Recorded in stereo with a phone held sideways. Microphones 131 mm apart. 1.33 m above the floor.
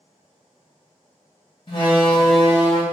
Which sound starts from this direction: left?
A door slam, at 1.7 s.